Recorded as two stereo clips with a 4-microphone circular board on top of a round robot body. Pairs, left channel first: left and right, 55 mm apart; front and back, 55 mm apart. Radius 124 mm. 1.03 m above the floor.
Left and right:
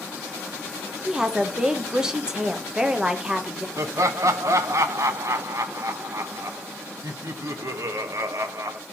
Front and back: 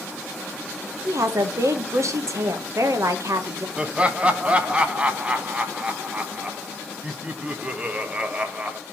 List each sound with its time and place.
1.1 s a woman speaking: 165° right, 1.4 m
3.8 s laughter: 110° right, 1.1 m